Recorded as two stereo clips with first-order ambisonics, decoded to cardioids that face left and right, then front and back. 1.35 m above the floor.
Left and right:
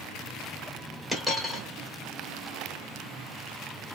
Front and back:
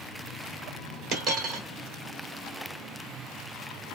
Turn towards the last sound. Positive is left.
turn(degrees=-170)